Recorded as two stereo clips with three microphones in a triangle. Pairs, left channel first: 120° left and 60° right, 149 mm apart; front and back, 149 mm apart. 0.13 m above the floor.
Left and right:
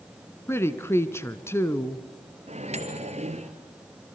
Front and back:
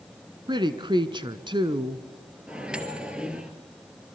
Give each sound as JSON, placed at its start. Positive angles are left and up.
{"t": 0.5, "sound": "a woman speaking", "azimuth_deg": 175, "distance_m": 1.2}
{"t": 2.5, "sound": "a microwave", "azimuth_deg": -100, "distance_m": 2.0}